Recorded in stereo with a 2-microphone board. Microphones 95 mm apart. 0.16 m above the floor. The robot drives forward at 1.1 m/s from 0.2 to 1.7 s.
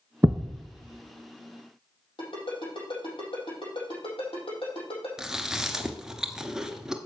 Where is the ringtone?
70° left (ahead or behind), 4.5 m.